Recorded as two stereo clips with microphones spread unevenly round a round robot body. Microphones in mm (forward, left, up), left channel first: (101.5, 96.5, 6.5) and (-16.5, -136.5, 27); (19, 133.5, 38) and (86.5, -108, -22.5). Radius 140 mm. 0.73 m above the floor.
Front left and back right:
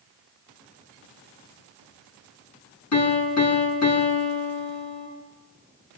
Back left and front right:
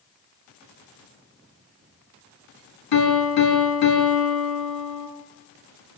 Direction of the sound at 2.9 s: 100° left.